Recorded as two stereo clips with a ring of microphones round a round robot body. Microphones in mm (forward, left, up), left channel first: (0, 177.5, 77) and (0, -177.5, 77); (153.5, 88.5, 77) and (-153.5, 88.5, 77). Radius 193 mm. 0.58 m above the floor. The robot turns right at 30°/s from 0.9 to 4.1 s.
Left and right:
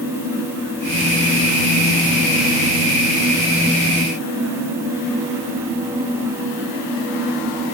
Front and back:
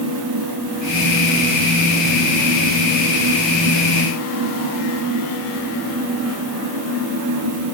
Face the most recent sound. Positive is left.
No sound to turn to.